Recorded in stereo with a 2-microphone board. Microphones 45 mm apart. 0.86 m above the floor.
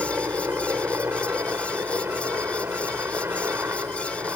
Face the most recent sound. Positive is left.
turn(degrees=-65)  # may be behind; listen again after turning